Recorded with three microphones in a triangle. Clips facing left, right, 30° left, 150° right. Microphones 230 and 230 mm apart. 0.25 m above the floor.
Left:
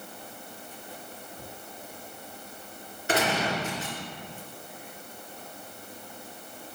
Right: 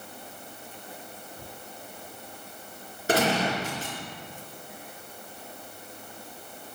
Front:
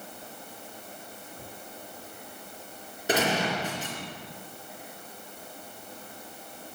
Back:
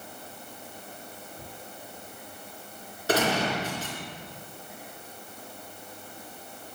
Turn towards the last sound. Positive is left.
turn(degrees=-45)